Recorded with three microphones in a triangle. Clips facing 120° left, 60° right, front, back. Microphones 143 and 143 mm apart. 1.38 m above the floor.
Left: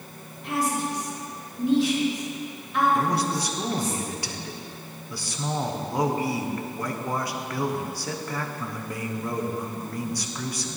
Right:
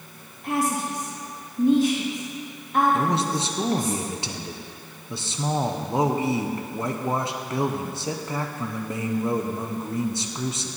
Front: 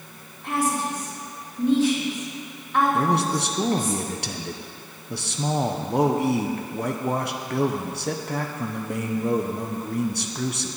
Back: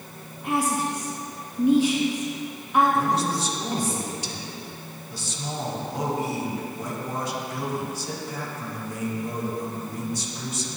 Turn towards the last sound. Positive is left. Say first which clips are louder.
# right 1 dB, front 2 dB
turn(degrees=5)